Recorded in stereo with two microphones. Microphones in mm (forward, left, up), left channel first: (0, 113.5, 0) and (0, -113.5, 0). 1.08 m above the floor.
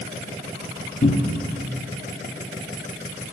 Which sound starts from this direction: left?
A cupboard door, at 1.0 s.